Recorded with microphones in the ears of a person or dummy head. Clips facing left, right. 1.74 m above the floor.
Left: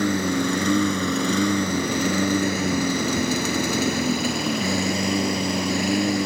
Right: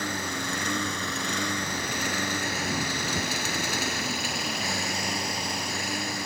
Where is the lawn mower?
70° left (ahead or behind).